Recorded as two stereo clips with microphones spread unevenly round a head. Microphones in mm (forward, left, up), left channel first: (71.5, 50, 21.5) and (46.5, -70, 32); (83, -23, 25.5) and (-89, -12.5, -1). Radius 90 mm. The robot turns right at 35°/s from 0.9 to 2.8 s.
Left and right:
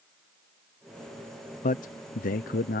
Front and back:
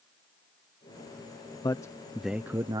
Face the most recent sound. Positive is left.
turn(degrees=105)